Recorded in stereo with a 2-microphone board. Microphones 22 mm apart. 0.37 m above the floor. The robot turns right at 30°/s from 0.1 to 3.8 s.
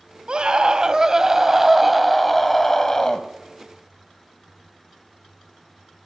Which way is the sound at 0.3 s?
55° right.